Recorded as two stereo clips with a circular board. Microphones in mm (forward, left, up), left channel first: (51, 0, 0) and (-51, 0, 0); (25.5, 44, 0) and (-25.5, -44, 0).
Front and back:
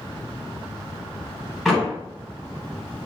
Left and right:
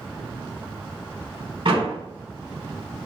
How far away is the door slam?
About 4 m.